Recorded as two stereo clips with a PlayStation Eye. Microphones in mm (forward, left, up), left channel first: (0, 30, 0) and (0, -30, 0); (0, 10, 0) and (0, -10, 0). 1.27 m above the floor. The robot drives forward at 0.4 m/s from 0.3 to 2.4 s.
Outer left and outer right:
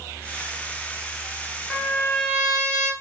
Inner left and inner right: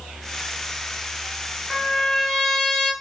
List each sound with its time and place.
1.7 s a trumpet: 20° left (ahead or behind), 6.5 m